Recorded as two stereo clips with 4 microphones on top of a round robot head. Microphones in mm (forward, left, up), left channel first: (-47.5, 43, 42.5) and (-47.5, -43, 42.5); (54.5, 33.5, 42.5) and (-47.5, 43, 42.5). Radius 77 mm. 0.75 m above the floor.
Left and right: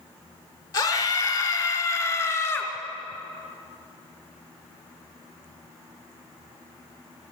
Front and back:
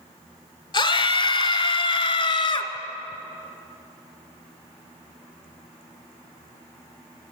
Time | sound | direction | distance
0.7 | a scream | 40° left | 3 m